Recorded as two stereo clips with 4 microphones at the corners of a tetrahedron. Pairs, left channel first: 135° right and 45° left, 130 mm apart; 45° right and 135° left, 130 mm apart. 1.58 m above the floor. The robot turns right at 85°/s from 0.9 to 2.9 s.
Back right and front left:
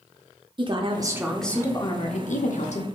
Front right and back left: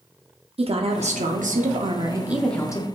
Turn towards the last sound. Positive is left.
turn(degrees=-95)